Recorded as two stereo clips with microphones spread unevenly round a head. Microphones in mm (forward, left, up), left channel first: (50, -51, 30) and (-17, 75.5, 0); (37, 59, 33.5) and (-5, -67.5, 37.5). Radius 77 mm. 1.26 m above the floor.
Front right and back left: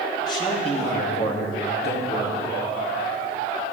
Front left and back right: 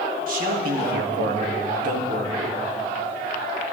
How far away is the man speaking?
About 2 m.